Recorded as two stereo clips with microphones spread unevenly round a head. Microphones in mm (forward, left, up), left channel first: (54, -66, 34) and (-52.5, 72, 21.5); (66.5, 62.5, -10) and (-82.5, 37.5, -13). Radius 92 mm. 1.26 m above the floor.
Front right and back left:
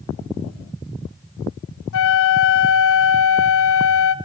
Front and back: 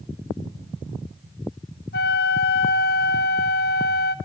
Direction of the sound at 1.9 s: 35° right.